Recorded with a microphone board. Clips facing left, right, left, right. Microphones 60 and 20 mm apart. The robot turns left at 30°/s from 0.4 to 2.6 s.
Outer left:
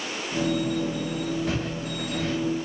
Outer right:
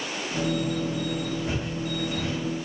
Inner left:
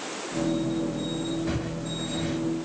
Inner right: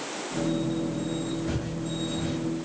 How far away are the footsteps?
About 1.9 m.